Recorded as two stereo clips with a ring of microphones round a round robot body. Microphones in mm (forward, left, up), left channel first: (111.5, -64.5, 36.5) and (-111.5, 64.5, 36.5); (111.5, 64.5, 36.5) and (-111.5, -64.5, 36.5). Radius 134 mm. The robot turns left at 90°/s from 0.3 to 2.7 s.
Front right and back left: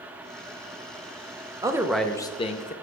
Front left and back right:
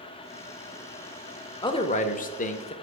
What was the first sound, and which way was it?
A man speaking, 90° left.